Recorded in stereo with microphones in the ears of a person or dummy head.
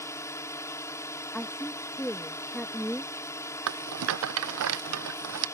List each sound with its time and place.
0.0 s a drone: 15° left (ahead or behind)
1.3 s a woman speaking: 5° left (ahead or behind)
3.7 s a rattle: 70° right (ahead or behind)